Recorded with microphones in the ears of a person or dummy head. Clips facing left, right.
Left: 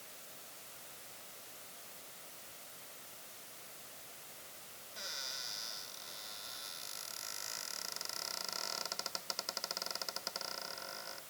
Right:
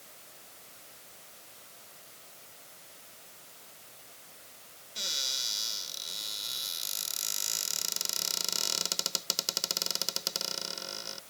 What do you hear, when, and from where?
5.0 s a cupboard door: 50° right (ahead or behind)